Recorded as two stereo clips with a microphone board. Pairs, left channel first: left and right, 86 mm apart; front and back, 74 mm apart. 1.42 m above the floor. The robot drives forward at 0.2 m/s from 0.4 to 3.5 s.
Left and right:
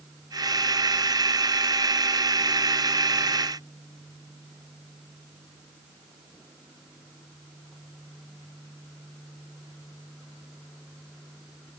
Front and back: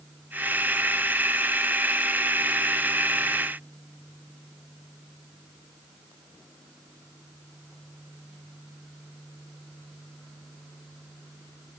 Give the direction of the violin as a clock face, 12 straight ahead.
I don't hear a violin.